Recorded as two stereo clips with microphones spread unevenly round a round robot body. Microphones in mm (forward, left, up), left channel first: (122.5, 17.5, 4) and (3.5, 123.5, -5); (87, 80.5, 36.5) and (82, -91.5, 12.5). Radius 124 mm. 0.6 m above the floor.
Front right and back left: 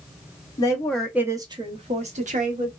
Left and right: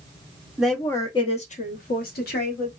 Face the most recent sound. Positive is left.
turn(degrees=115)